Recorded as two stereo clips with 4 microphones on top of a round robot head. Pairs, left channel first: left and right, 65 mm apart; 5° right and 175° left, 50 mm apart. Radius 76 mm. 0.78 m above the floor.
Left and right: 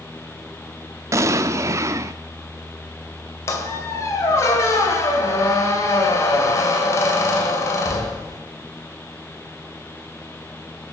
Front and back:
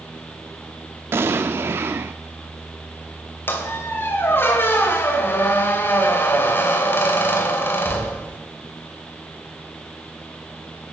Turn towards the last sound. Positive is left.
turn(degrees=40)